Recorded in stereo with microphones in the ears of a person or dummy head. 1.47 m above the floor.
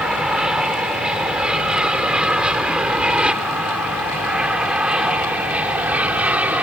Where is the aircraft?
Centre (ahead or behind); by 6.6 s 5° right (ahead or behind).